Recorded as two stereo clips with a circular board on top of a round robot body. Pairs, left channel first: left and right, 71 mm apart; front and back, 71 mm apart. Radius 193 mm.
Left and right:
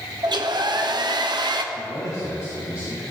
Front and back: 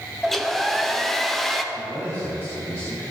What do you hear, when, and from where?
0.2 s a hair dryer: 85° right, 1.0 m
1.7 s a man speaking: 55° left, 3.5 m